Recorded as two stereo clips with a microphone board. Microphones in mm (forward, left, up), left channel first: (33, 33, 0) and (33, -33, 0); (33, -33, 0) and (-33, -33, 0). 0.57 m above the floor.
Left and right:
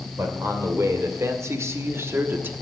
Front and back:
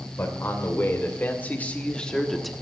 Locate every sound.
0.2 s a man speaking: 50° right, 2.5 m; by 2.5 s 95° right, 1.0 m